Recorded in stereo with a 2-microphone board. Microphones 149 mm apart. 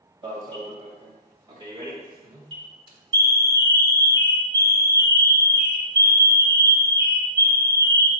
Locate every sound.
0.2 s an alarm: 30° right (ahead or behind), 1.9 m